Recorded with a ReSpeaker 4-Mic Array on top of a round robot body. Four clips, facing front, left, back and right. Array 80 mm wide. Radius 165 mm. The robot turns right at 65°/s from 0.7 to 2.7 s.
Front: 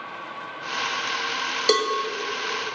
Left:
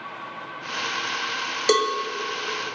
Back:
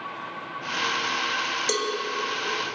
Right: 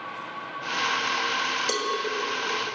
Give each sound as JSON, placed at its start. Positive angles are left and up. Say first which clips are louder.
{"t": 1.7, "sound": "a cowbell", "louder": "left 12 dB, front 8 dB", "azimuth_deg": 65, "distance_m": 1.5}